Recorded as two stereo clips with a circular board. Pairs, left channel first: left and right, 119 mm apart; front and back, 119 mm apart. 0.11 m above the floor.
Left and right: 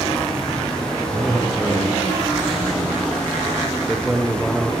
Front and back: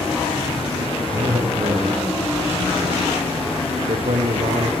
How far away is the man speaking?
About 3 m.